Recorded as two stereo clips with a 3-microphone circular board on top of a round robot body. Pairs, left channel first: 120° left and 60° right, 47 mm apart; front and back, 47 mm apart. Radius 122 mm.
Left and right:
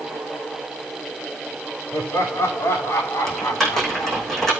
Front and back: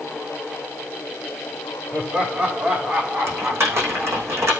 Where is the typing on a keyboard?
155° right, 9 m.